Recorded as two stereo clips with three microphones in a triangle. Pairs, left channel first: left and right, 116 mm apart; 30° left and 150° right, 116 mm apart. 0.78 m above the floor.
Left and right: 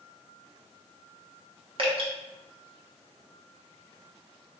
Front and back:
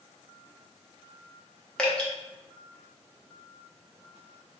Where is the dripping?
50° right, 0.8 m.